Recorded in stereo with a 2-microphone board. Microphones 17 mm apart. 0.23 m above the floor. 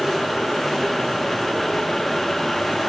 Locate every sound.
Only background noise.